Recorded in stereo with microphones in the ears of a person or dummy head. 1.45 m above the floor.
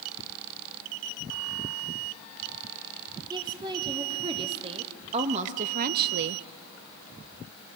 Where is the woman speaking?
20° right (ahead or behind), 3 m; by 6.4 s 65° right (ahead or behind), 0.6 m.